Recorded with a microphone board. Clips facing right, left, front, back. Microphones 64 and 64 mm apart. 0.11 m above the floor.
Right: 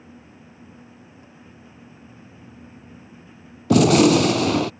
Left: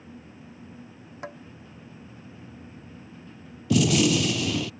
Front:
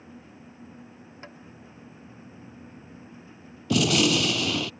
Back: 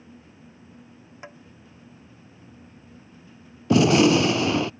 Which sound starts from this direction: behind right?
A gunshot, at 3.7 s.